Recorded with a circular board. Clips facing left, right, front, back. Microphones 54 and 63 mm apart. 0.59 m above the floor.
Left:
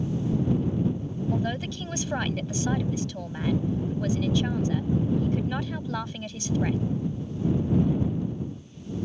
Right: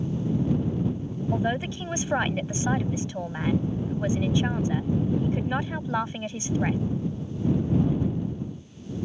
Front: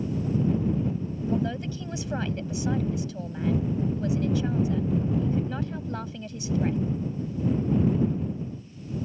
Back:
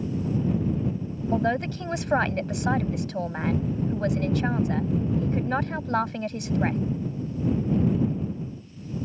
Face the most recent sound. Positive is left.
turn(degrees=-155)